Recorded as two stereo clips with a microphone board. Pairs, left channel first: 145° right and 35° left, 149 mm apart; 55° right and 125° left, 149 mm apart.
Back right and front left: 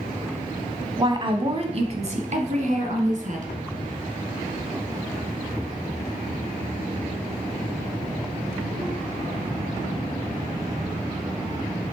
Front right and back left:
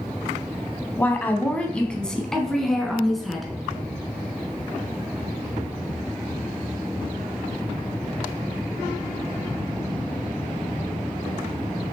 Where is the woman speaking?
10° left, 1.1 m; by 3.5 s 35° left, 2 m.